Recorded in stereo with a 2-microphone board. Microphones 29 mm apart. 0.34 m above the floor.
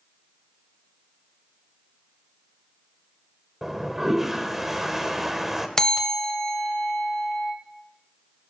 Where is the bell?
20° left (ahead or behind), 1.0 m.